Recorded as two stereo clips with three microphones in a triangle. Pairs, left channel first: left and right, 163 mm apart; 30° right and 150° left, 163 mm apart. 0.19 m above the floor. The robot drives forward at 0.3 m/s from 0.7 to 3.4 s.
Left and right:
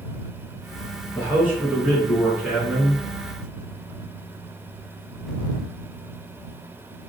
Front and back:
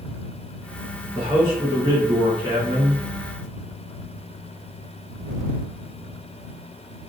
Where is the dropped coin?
No dropped coin in this recording.